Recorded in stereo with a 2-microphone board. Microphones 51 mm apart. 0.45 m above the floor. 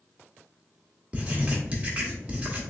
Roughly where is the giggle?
No giggle in this recording.